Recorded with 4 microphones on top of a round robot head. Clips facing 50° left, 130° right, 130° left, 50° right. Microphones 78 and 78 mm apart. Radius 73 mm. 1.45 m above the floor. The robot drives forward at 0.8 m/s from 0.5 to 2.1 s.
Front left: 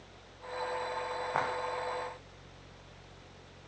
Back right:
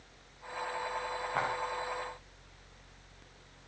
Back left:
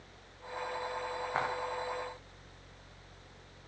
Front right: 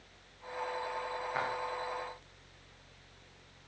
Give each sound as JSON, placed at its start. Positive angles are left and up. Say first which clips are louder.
{"t": 1.3, "sound": "footsteps", "louder": "even, back left 2 dB", "azimuth_deg": 70, "distance_m": 5.0}